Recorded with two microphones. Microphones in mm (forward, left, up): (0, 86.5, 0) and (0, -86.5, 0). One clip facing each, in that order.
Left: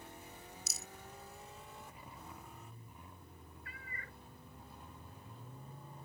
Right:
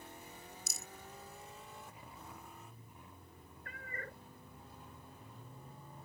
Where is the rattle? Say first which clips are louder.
Even; 55° right (ahead or behind).